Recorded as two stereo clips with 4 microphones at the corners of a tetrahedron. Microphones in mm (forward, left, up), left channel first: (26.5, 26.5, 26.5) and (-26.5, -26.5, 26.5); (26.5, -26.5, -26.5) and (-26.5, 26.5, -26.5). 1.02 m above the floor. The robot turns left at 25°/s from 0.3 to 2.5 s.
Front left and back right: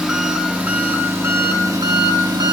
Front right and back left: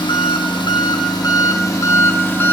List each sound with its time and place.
0.0 s an engine running: 55° right, 1.0 m; by 2.5 s 110° right, 1.0 m